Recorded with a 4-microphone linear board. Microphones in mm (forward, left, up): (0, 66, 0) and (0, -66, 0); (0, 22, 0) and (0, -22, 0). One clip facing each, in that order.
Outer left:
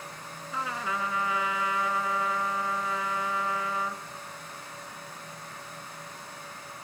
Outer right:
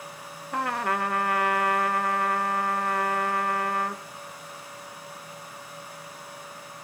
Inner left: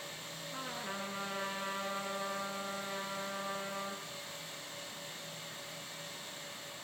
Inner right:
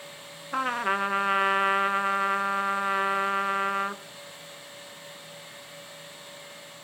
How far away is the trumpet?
About 1.1 m.